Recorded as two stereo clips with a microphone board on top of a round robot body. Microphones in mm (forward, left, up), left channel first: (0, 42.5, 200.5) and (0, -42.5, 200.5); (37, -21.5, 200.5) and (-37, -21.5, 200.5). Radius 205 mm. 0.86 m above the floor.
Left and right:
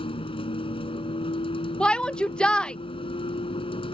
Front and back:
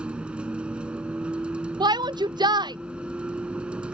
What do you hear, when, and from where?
0.0 s a vehicle: 105° left
1.8 s a shout: 170° left